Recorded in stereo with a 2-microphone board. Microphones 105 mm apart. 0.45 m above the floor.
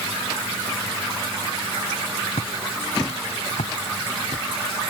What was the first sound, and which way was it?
Footsteps, 70° left (ahead or behind).